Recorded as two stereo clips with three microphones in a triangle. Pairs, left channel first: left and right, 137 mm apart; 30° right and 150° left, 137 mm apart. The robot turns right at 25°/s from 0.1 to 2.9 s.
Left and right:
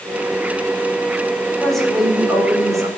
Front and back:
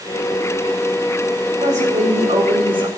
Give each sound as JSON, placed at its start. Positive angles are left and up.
{"t": 1.6, "sound": "a woman speaking", "azimuth_deg": 175, "distance_m": 4.5}